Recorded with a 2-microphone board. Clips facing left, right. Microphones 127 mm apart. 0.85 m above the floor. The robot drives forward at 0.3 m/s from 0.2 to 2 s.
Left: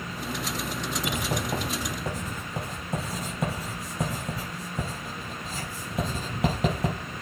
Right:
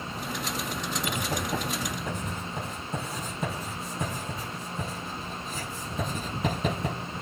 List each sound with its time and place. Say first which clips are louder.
1.1 s writing: left 1 dB; 80° left, 6 m